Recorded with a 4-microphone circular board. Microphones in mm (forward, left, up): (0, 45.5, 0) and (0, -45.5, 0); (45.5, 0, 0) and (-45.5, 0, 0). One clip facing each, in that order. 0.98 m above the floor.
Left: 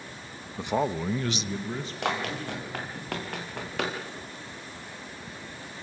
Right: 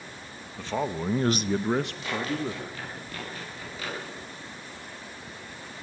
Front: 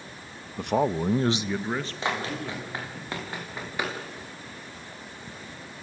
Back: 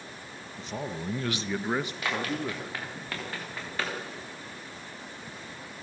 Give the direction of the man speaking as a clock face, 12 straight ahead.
11 o'clock.